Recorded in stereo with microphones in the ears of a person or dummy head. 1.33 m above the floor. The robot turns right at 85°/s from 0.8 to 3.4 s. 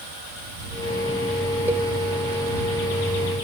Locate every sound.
1.7 s a cowbell: 15° right (ahead or behind); by 1.9 s 5° left (ahead or behind)